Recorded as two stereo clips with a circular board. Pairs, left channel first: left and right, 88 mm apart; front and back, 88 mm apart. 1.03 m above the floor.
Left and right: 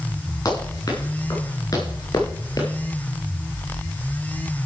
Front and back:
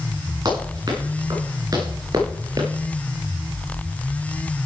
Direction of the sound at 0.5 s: 145° left.